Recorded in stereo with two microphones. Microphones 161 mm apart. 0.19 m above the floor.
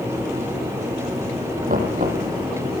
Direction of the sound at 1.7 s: 60° right (ahead or behind).